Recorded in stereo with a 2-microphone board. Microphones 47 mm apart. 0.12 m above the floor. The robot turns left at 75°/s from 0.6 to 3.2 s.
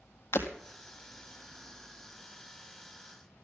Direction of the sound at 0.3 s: 65° left (ahead or behind).